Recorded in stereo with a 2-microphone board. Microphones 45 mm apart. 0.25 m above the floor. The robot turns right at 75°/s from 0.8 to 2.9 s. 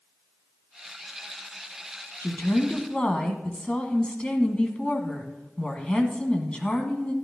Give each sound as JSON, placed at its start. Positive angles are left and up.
{"t": 2.2, "sound": "a woman speaking", "azimuth_deg": 100, "distance_m": 1.8}